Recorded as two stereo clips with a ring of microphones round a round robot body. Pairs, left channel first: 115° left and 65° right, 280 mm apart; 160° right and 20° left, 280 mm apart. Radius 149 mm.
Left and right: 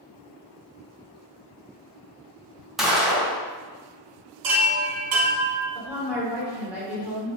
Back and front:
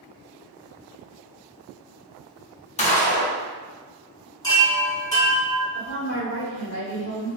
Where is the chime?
80° right, 0.9 m.